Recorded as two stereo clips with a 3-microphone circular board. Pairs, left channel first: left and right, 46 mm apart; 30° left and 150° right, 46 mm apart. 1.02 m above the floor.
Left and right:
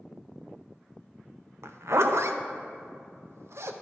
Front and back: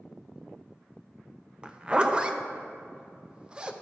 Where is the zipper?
85° right, 0.6 m.